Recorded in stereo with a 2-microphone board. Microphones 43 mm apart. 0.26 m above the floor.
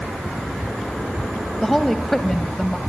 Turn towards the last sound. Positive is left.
turn(degrees=10)  # may be behind; listen again after turning